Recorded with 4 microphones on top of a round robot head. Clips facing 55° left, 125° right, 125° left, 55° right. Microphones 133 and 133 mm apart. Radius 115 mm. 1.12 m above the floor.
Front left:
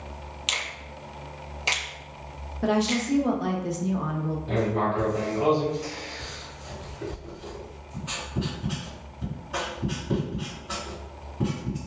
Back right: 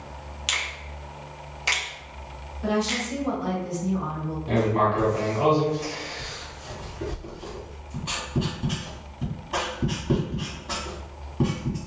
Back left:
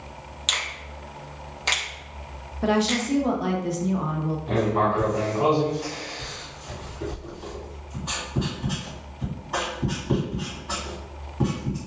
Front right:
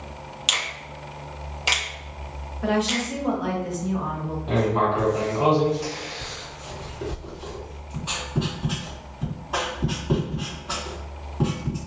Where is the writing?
135° right, 1.7 m.